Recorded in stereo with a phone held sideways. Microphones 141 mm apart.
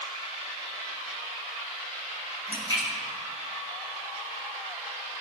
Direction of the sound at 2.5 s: 25° right (ahead or behind).